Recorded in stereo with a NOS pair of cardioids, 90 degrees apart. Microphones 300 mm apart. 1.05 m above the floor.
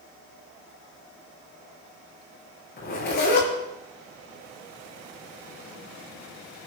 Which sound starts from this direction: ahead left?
A zipper, at 2.8 s.